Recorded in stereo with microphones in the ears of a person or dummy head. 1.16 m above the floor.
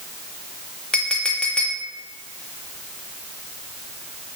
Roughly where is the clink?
Centre.